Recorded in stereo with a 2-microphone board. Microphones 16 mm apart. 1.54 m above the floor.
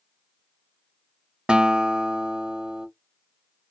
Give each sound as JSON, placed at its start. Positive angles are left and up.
{"t": 1.5, "sound": "a guitar", "side_deg": -70, "distance_m": 0.5}